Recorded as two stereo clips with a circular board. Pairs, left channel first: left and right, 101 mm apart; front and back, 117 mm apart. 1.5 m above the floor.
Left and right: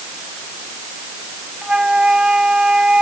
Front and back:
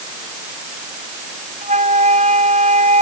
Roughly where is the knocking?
No knocking in this recording.